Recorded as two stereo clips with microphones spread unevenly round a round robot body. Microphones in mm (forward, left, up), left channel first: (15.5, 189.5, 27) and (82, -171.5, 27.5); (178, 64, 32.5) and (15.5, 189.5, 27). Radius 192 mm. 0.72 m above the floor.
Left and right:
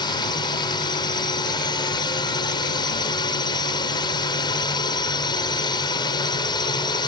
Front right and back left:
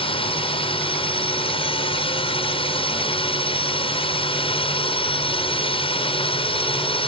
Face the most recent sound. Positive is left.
turn(degrees=25)